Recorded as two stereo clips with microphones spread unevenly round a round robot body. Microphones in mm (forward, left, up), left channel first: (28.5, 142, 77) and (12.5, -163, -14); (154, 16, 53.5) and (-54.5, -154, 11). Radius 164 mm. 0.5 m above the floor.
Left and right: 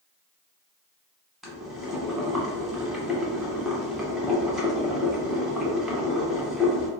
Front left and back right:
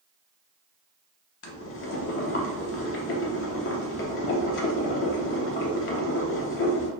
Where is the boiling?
5° left, 0.7 m.